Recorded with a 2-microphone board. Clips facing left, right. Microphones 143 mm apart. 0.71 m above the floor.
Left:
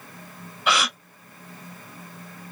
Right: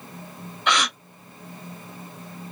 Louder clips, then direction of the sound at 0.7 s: Even; 5° left (ahead or behind).